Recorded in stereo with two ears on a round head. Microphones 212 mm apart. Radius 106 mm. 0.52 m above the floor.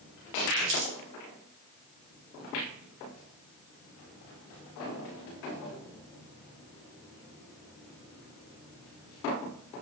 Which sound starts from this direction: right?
Crumpling, at 0.6 s.